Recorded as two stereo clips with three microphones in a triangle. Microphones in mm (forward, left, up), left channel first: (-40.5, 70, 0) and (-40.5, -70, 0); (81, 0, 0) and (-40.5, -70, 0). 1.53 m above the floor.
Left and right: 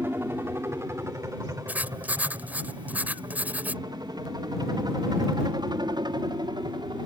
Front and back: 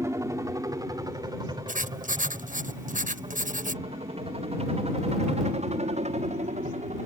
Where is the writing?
170° right.